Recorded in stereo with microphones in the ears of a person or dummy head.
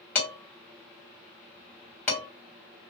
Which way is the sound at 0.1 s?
5° left (ahead or behind).